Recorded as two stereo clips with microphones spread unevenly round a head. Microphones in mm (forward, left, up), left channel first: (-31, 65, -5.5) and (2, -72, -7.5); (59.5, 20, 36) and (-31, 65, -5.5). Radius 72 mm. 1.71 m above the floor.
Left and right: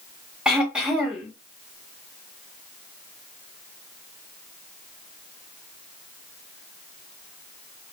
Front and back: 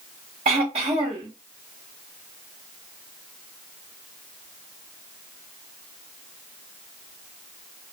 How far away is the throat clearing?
About 1.0 m.